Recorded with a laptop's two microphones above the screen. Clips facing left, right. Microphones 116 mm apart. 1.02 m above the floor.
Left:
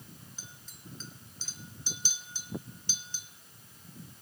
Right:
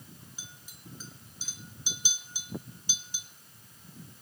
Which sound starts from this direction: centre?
A clink, at 0.4 s.